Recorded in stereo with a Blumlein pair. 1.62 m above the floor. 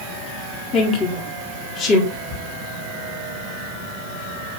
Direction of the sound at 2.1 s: 35° left.